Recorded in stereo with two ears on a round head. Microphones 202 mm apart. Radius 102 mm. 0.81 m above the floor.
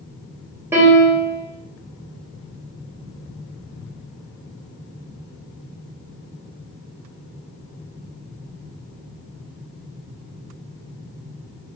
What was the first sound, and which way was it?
A piano, 10° right (ahead or behind).